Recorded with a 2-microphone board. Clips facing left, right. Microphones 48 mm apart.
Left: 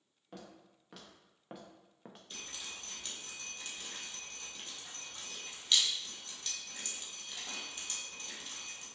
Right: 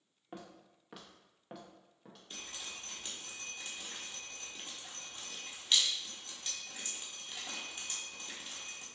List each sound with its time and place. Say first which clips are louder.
0.3 s footsteps: right 2 dB; 25° right (ahead or behind), 1.2 m; by 2.2 s 40° left (ahead or behind), 0.8 m
2.3 s dripping: right 1 dB; 20° right (ahead or behind), 1.3 m